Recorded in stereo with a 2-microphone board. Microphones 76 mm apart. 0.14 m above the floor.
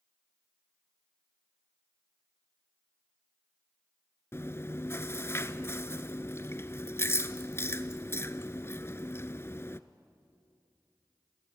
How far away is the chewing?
About 0.6 m.